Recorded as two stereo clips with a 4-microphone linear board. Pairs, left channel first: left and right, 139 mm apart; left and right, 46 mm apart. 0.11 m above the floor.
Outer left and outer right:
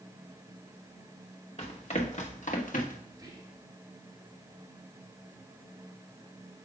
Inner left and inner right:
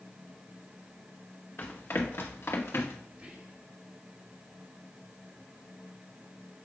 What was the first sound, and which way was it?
Running footsteps, 45° left (ahead or behind).